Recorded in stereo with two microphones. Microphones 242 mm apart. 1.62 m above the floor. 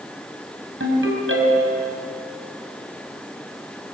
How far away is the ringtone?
About 5.5 m.